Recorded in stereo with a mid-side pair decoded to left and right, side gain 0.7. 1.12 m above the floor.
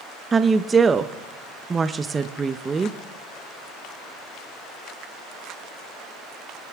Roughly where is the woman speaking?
Ahead.